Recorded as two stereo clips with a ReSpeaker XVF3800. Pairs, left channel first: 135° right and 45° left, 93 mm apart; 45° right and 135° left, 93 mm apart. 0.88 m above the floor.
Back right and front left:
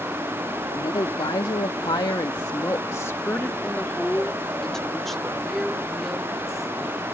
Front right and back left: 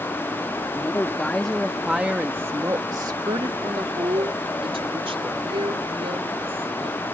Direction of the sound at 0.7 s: 105° right.